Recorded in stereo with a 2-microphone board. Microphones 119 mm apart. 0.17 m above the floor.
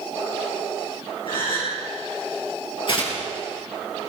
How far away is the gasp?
About 5.5 m.